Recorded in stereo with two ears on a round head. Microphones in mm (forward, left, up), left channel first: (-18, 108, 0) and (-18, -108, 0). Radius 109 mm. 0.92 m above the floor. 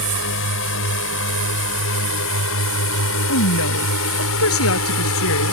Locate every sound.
0.0 s a drone: 50° left (ahead or behind); by 5.5 s 60° left (ahead or behind)
3.3 s a woman speaking: 65° left (ahead or behind)